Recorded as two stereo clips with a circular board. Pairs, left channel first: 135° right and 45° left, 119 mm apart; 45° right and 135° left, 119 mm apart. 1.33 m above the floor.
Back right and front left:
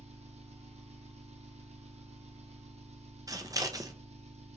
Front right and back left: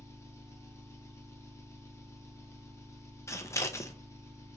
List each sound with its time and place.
0.0 s an engine running: 20° left, 0.9 m
3.3 s scissors: 5° left, 0.6 m